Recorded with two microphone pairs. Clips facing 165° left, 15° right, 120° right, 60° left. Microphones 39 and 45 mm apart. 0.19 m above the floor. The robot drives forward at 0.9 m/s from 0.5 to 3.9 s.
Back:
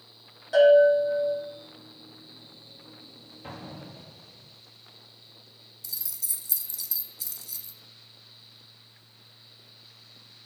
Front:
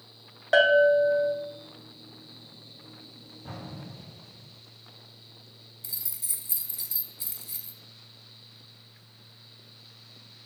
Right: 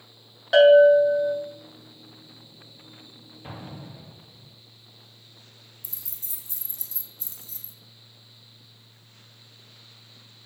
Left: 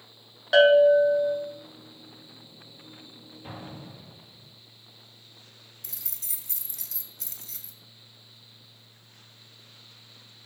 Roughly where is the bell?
Ahead right.